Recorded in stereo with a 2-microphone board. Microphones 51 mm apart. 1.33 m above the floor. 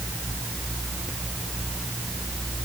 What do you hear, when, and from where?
Only background noise.